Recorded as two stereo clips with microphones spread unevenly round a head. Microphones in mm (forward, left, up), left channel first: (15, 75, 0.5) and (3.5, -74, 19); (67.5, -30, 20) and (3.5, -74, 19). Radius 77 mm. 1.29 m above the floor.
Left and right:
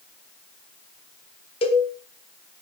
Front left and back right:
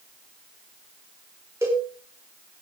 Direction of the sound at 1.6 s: 140° left.